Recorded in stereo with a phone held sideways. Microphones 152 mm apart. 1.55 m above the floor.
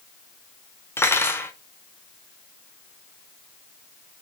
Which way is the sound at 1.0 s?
15° left (ahead or behind).